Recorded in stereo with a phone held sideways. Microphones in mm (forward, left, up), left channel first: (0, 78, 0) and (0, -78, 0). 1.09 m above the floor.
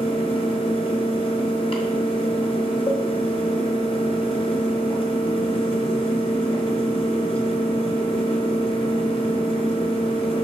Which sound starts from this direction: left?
A fan, at 0.0 s.